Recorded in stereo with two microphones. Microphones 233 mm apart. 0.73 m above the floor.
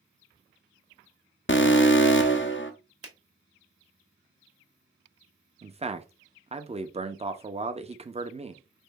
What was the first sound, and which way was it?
An alarm, 55° left (ahead or behind).